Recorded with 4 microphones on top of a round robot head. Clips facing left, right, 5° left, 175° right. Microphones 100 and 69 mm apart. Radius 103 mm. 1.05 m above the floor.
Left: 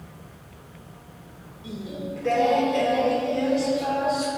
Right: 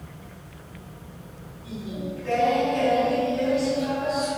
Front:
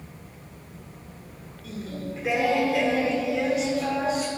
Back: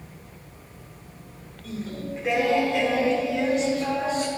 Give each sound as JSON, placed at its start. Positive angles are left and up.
{"t": 1.6, "sound": "singing", "azimuth_deg": 90, "distance_m": 1.4}